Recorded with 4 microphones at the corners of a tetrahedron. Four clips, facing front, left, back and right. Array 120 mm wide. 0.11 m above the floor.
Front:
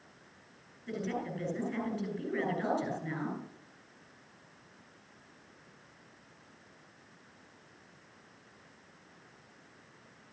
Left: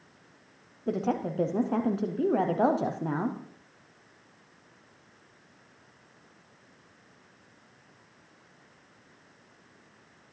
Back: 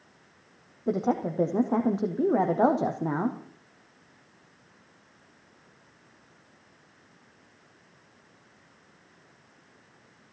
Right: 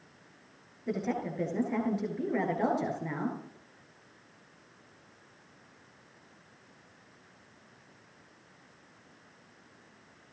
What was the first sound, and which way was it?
A woman speaking, 160° left.